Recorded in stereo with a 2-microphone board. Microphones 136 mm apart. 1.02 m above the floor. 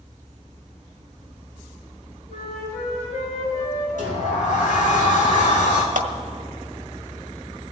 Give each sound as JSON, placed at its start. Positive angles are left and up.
{"t": 2.3, "sound": "a flute", "side_deg": 60, "distance_m": 5.5}
{"t": 4.0, "sound": "a sliding door", "side_deg": 70, "distance_m": 2.5}
{"t": 6.0, "sound": "a clap", "side_deg": -75, "distance_m": 1.7}